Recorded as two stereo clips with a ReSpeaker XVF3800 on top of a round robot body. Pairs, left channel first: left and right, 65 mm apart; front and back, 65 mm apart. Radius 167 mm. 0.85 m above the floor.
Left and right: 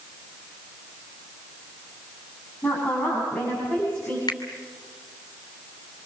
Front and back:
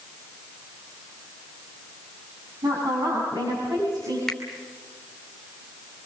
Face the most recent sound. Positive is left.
turn(degrees=85)